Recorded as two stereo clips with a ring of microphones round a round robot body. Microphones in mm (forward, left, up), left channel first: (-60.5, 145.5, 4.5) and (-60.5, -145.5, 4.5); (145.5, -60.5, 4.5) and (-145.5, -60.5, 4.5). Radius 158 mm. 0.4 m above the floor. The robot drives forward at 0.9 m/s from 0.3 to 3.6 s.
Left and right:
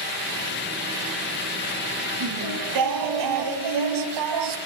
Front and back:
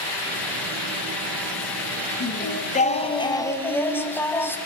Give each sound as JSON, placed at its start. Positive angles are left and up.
{"t": 2.2, "sound": "singing", "azimuth_deg": -55, "distance_m": 3.0}